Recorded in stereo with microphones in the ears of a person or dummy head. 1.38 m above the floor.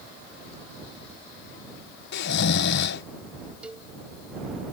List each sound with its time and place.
2.1 s snoring: 65° left (ahead or behind)
3.6 s a cowbell: 10° right (ahead or behind)